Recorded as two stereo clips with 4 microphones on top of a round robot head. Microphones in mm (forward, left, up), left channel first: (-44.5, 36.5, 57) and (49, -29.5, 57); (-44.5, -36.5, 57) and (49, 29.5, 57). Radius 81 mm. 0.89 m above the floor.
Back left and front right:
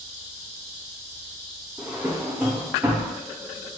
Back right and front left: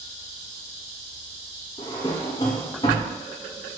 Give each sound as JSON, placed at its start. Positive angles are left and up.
{"t": 1.8, "sound": "a drawer", "azimuth_deg": -105, "distance_m": 0.5}